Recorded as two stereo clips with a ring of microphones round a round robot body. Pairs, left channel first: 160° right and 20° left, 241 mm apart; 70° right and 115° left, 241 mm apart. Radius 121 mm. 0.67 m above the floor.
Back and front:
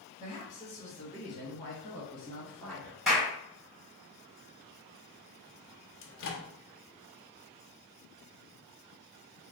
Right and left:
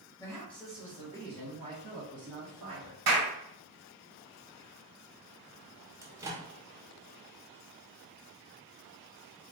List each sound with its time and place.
0.2 s a woman speaking: 130° right, 1.3 m; by 3.0 s 115° left, 1.9 m
3.1 s a clap: 110° left, 1.7 m
6.0 s a microwave: 170° right, 0.6 m